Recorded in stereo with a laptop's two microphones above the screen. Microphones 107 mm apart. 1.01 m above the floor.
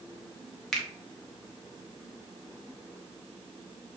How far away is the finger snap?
About 0.7 m.